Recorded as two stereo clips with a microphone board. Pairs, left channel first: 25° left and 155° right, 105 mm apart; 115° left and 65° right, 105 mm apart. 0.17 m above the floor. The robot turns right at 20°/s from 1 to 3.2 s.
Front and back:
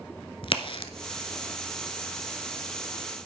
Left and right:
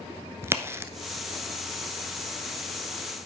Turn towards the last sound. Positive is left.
turn(degrees=40)